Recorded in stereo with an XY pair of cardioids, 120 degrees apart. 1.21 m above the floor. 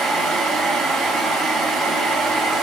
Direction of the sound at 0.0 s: 65° right.